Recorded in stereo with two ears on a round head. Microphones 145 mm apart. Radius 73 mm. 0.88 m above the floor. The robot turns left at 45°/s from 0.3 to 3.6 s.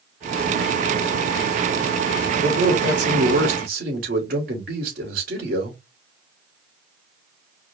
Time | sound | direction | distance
2.4 | a man speaking | 60° right | 2 m